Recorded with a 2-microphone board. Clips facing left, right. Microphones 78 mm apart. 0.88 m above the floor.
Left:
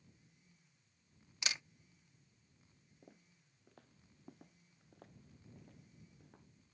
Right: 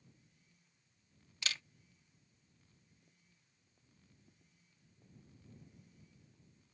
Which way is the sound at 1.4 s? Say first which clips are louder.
Even; 20° left (ahead or behind).